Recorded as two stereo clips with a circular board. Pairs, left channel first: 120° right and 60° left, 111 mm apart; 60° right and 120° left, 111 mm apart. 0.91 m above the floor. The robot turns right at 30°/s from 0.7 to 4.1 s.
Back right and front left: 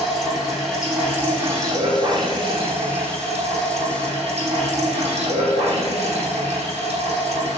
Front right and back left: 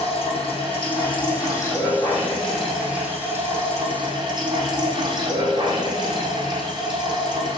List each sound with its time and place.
0.0 s running water: 25° right, 6.5 m; by 7.6 s 75° left, 6.5 m